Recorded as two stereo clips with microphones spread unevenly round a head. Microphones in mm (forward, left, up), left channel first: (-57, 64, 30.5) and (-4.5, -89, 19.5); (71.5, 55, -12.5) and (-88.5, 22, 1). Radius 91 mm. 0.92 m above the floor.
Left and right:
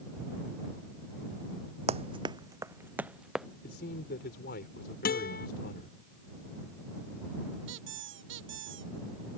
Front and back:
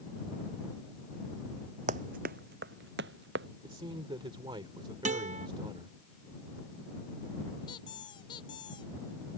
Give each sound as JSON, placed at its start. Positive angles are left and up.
{"t": 1.9, "sound": "running footsteps", "azimuth_deg": -120}
{"t": 3.6, "sound": "a man speaking", "azimuth_deg": 130}
{"t": 5.0, "sound": "a guitar", "azimuth_deg": 145}
{"t": 7.7, "sound": "a squeak", "azimuth_deg": -55}